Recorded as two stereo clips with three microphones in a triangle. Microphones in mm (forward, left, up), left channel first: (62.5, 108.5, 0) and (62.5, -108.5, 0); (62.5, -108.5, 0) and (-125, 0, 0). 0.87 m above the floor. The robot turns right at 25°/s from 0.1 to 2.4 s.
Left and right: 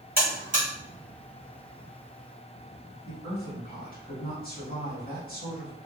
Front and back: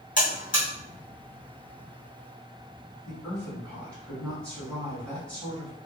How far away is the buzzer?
About 1.7 m.